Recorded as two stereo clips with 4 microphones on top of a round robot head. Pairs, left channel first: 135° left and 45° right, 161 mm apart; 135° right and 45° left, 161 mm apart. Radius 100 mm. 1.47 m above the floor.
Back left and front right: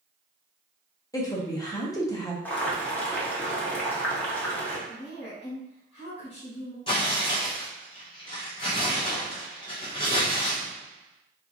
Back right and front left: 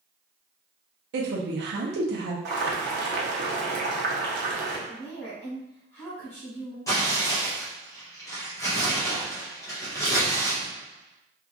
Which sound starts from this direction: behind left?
A woman speaking, at 4.9 s.